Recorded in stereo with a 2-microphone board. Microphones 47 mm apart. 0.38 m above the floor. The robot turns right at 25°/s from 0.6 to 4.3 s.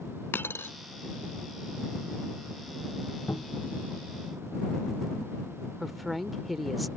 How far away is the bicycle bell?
No bicycle bell in this recording.